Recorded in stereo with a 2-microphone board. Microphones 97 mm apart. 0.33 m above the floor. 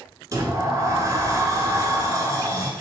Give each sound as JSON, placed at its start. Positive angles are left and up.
{"t": 0.3, "sound": "a sliding door", "side_deg": -35, "distance_m": 0.6}